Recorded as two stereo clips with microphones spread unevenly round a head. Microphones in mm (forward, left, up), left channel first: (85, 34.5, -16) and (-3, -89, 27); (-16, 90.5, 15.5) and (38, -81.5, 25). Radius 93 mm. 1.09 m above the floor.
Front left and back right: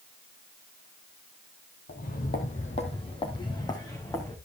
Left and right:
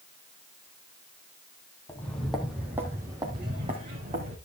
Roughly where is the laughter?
No laughter in this recording.